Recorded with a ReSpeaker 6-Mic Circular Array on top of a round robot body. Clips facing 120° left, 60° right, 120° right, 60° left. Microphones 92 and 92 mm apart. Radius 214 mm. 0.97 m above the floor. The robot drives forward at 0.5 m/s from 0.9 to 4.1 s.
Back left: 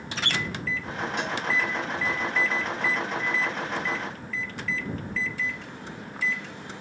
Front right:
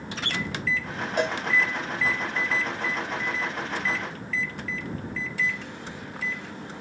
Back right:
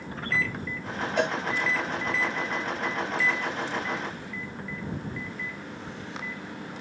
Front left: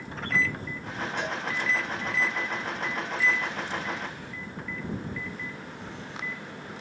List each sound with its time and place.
1.2 s a cowbell: 105° right, 2.5 m